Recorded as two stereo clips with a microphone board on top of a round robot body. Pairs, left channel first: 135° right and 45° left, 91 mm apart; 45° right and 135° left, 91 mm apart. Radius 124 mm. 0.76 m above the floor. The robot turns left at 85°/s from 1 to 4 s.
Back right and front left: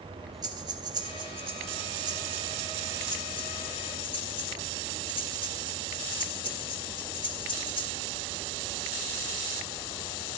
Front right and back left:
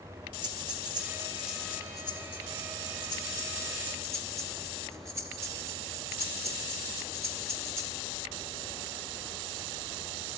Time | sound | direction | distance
0.4 | breathing | 90° left | 4 m